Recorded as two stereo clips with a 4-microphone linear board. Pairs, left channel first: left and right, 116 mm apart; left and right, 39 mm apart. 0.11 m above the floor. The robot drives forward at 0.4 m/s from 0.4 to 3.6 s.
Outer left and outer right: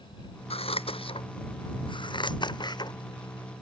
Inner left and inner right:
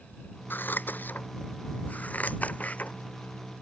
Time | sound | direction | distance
0.5 | scissors | 60° left (ahead or behind) | ?